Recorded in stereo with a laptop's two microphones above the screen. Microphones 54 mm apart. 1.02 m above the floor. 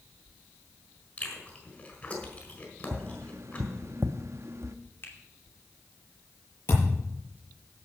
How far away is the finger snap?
About 2.5 m.